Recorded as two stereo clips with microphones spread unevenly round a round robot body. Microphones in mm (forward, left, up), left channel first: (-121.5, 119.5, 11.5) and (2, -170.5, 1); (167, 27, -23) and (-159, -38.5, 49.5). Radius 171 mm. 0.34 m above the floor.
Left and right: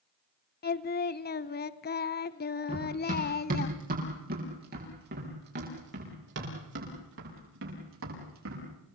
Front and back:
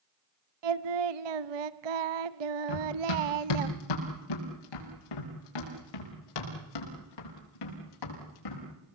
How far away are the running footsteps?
About 7 m.